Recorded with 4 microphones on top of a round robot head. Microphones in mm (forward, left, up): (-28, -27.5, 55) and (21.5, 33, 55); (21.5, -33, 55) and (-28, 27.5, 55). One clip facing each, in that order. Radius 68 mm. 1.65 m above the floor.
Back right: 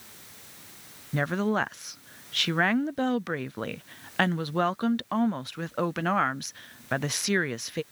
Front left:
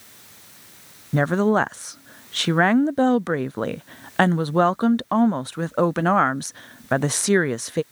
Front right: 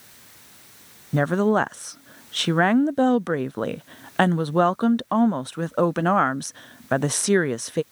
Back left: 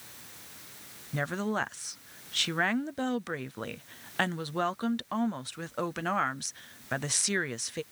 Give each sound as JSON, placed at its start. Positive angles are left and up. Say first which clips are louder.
{"t": 1.1, "sound": "a woman speaking", "louder": "front left 8 dB, front right 11 dB", "azimuth_deg": -5}